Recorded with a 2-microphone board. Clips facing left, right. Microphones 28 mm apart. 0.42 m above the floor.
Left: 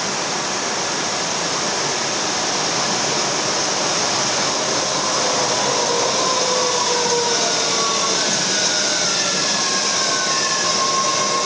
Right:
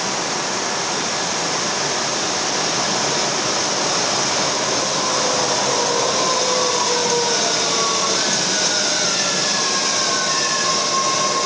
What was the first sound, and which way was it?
Only background noise.